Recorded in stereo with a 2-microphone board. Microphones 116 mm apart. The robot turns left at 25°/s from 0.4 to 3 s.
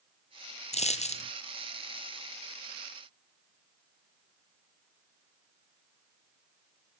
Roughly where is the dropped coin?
Left.